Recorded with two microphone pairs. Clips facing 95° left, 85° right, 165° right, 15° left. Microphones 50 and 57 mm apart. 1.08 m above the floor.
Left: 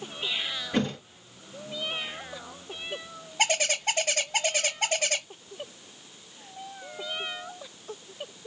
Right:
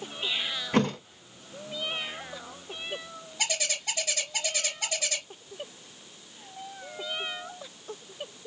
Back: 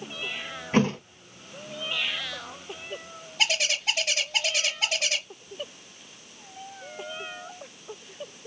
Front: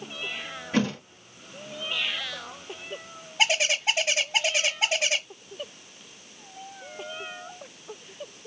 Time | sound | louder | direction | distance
0.7 | a thud | right 3 dB, back 3 dB | 120° right | 2.0 m
3.4 | a bird | left 6 dB, front 3 dB | 80° left | 0.7 m